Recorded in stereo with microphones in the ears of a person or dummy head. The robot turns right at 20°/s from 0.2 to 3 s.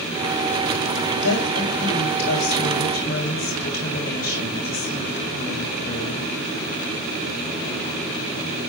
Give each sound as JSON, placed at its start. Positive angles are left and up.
{"t": 1.2, "sound": "a woman speaking", "azimuth_deg": 90, "distance_m": 6.0}